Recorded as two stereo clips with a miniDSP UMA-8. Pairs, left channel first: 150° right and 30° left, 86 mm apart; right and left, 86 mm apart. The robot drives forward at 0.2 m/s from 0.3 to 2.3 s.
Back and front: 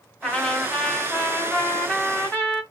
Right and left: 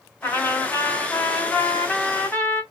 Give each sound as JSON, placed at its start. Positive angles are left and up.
{"t": 0.2, "sound": "a trumpet", "azimuth_deg": -80, "distance_m": 1.0}